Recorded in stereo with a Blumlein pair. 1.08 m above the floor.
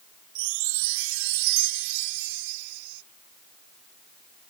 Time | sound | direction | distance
0.3 | a chime | 50° right | ?